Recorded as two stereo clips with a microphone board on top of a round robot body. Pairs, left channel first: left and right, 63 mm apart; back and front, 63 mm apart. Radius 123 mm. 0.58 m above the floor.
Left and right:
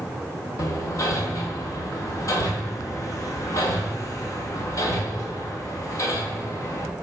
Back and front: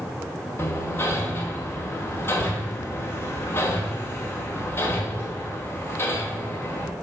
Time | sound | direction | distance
0.6 | hammering | 125° left | 1.5 m